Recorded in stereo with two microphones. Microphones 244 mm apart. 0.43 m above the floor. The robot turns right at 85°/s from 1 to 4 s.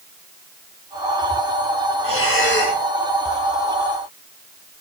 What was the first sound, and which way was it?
Breathing, 85° left.